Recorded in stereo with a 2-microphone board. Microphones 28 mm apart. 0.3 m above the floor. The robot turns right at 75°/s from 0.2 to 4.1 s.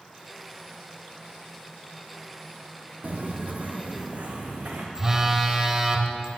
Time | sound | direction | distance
3.0 | footsteps | 65° right (ahead or behind) | 0.7 m
5.0 | a phone buzzing | 20° right (ahead or behind) | 0.6 m